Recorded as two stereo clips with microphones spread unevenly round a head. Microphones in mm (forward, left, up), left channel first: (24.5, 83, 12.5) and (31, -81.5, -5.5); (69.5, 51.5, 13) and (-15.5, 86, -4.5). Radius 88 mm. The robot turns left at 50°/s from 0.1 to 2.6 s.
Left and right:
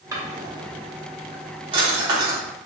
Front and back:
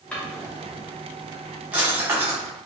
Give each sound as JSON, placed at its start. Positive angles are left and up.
{"t": 0.1, "sound": "a drawer", "azimuth_deg": -30, "distance_m": 0.8}